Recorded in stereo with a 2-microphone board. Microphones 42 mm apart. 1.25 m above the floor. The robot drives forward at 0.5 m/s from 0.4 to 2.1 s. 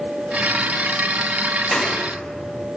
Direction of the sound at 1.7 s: 5° left (ahead or behind).